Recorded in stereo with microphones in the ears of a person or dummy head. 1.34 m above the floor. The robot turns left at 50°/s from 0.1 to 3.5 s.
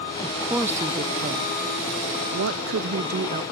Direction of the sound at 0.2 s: 15° left.